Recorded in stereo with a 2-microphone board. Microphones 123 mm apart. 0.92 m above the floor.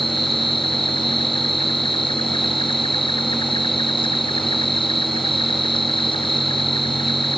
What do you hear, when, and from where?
0.0 s an insect: 45° left (ahead or behind)